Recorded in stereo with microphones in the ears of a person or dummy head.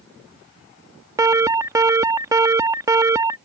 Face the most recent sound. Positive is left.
turn(degrees=-20)  # may be behind; listen again after turning